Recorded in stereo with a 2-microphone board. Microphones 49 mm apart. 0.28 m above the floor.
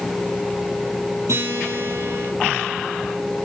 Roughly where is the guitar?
Right.